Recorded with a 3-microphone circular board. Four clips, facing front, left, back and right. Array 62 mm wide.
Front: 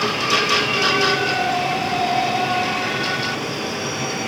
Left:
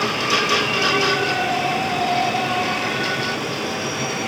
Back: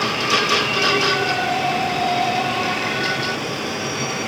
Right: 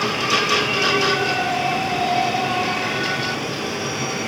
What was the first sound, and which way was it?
Only background noise.